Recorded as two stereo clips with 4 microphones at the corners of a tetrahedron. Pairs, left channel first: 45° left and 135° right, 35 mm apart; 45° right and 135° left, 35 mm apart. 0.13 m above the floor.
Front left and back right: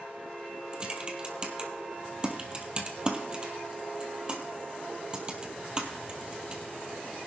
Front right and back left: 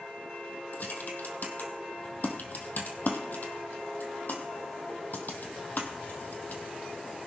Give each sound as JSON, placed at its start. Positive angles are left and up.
{"t": 0.7, "sound": "typing on a keyboard", "azimuth_deg": -70, "distance_m": 1.7}